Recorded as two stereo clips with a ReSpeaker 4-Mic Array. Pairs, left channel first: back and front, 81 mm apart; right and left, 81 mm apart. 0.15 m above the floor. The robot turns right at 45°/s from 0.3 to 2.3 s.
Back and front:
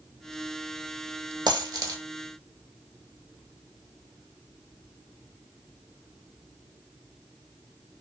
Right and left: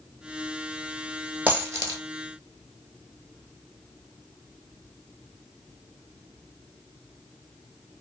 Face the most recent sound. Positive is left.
turn(degrees=60)